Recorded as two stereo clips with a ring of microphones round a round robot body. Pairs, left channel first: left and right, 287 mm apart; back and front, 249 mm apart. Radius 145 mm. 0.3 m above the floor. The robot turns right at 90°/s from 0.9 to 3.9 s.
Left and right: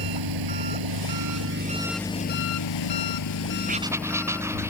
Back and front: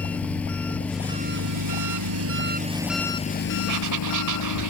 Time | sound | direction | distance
0.0 | an engine running | 95° right | ?
3.7 | writing | 30° right | ?